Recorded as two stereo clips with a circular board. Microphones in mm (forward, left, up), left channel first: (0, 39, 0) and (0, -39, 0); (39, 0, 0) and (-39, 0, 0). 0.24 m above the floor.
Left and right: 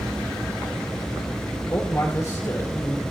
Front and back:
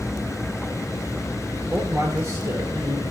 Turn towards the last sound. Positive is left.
turn(degrees=135)